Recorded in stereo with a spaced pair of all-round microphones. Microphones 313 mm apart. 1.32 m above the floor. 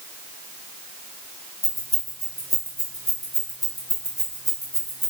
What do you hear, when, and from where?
1.6 s keys jangling: 10° right (ahead or behind), 1.1 m